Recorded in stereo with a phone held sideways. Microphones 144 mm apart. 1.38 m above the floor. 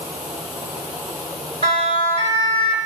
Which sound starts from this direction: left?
A siren, at 1.6 s.